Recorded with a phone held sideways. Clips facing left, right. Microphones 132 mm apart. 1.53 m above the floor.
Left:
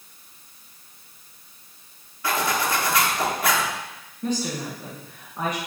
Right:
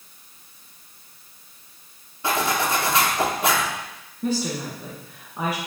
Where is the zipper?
25° right (ahead or behind), 1.1 m.